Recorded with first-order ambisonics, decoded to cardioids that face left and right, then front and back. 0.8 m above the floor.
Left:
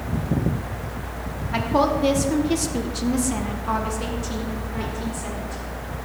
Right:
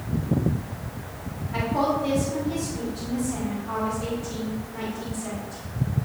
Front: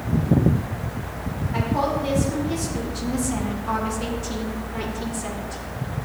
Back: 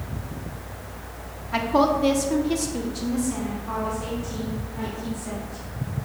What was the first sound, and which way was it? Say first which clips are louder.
A woman speaking: left 4 dB, back 4 dB; 140° left.